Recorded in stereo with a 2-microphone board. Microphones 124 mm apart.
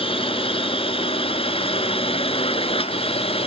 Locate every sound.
0.0 s a drone: 45° left (ahead or behind); by 3.5 s 50° left (ahead or behind)